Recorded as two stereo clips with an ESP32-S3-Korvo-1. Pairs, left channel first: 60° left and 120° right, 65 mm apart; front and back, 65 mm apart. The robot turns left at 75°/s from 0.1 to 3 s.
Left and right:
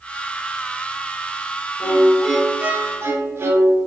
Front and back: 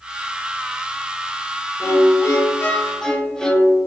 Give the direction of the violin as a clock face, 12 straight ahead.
12 o'clock.